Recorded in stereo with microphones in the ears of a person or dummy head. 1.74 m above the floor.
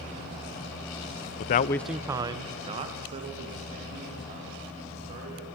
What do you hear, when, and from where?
1.4 s a man speaking: 45° left (ahead or behind), 0.6 m; by 5.5 s 45° right (ahead or behind), 5.5 m